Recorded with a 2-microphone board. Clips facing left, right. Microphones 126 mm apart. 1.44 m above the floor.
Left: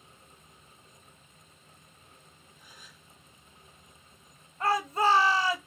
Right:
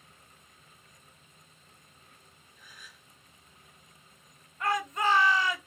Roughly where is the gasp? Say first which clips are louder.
Right 2 dB; left.